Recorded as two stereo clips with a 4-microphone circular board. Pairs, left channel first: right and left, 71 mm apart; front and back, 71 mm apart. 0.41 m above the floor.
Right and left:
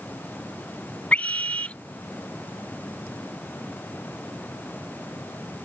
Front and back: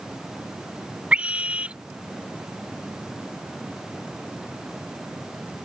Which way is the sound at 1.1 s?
135° right.